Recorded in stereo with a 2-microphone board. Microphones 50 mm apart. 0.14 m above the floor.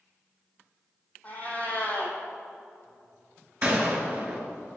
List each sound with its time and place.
1.2 s a cat meowing: 30° left (ahead or behind), 1.4 m
3.6 s a gunshot: 25° right (ahead or behind), 1.6 m